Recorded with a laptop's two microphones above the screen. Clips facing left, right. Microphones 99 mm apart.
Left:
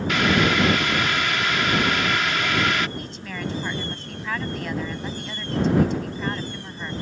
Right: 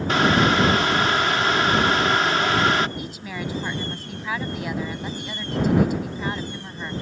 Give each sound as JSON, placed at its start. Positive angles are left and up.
{"t": 0.1, "sound": "boiling", "side_deg": -35}
{"t": 3.0, "sound": "a woman speaking", "side_deg": -5}